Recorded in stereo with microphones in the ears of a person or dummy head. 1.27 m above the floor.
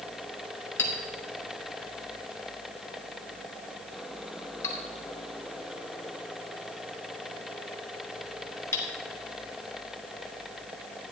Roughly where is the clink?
Centre.